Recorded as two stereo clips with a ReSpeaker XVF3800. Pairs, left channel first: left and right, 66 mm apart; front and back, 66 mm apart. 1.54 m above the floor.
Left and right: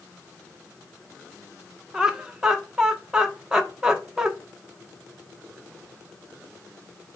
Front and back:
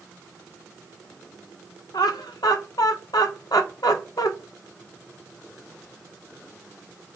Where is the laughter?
10° right, 1.4 m.